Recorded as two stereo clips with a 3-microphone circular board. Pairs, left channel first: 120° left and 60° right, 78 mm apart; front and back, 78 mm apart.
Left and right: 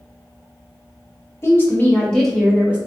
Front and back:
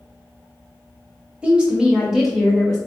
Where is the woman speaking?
120° left, 0.9 m; by 2.8 s 60° right, 0.8 m.